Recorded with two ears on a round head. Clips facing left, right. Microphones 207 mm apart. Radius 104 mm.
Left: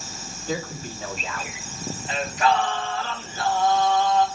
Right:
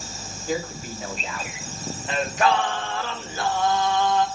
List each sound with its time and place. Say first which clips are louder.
0.5 s a man speaking: right 2 dB; 10° right (ahead or behind), 7.5 m; by 1.5 s 15° right (ahead or behind), 8.5 m
2.1 s singing: right 1 dB; 50° right (ahead or behind), 2 m